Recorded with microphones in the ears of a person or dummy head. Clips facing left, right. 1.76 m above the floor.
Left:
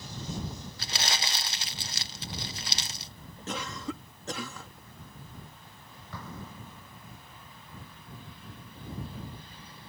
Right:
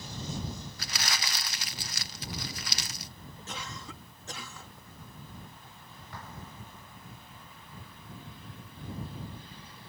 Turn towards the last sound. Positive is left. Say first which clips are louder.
# left 4 dB
turn(degrees=85)